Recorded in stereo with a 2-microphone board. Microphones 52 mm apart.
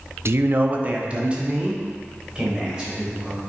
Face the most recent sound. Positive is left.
turn(degrees=-15)  # may be behind; listen again after turning